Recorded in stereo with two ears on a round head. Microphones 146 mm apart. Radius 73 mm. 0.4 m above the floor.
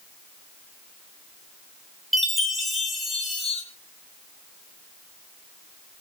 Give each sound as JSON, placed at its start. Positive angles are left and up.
{"t": 2.1, "sound": "a chime", "side_deg": 0, "distance_m": 3.5}